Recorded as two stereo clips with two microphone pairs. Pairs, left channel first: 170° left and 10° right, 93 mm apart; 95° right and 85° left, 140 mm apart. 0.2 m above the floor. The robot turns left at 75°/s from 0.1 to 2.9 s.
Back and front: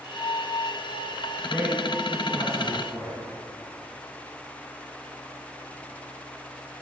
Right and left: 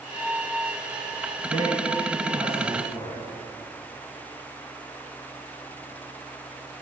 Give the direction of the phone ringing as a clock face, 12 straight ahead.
I don't hear a phone ringing.